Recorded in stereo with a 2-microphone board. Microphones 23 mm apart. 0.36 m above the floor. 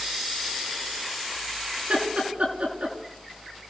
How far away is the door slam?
No door slam in this recording.